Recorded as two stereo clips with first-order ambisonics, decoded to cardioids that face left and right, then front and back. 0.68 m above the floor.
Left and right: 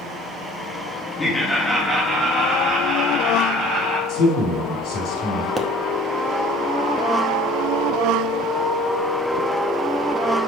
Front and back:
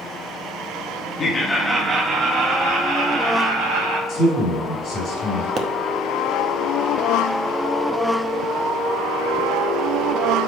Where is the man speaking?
60° left, 4 m.